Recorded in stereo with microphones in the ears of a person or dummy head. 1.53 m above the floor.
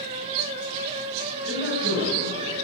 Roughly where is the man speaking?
Right.